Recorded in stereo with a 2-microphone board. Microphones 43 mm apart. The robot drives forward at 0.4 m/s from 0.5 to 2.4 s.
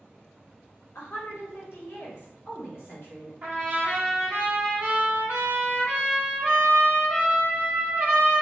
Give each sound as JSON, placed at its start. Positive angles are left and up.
{"t": 0.9, "sound": "a woman speaking", "side_deg": 80, "distance_m": 1.4}
{"t": 3.4, "sound": "a trumpet", "side_deg": -40, "distance_m": 1.0}